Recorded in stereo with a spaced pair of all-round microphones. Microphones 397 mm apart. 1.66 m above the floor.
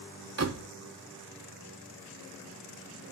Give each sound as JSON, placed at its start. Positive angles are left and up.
{"t": 0.4, "sound": "a door slam", "side_deg": -40, "distance_m": 0.5}